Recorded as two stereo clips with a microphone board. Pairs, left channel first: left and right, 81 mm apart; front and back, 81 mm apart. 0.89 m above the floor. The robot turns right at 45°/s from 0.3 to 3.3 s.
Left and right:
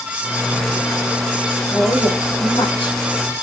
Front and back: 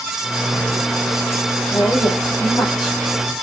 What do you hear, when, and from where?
1.7 s a woman speaking: 20° left, 3.5 m; by 3.0 s 75° left, 3.5 m